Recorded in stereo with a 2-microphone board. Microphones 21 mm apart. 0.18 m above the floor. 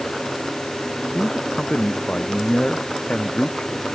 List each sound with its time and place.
1.1 s a man speaking: 60° left (ahead or behind); by 3.9 s 50° left (ahead or behind)